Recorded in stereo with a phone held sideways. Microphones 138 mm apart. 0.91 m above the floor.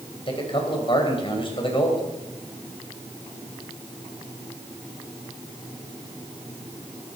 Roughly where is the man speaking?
Left.